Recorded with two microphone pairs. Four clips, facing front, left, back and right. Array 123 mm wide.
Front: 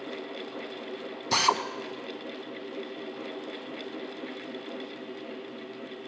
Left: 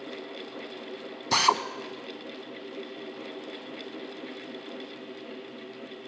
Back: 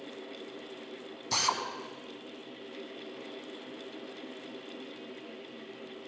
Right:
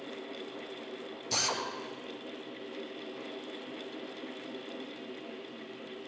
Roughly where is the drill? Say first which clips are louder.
Left 12 dB, front 6 dB; ahead left.